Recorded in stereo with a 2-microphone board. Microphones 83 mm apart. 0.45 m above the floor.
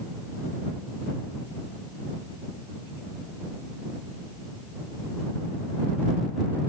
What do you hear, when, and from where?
Only background noise.